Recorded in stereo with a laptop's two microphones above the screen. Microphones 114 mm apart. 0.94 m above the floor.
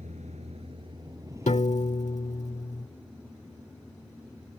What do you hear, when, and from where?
0.0 s a vehicle: 85° right; by 4.6 s 5° left (ahead or behind)
1.5 s a piano: 75° left (ahead or behind)